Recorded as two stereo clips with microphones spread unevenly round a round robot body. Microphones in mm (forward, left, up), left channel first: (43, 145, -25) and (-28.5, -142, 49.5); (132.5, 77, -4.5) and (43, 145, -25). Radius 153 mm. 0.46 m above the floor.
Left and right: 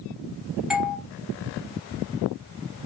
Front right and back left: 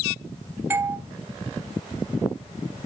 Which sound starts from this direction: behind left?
A doorbell, at 0.7 s.